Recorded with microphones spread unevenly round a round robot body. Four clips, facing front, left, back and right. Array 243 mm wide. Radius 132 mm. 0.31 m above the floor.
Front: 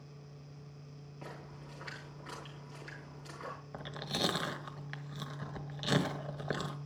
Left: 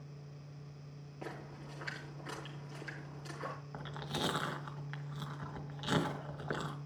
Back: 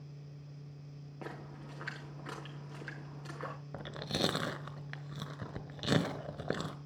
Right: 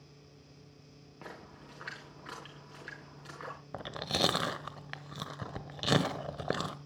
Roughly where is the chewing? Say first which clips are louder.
Right 8 dB, back 1 dB; behind right.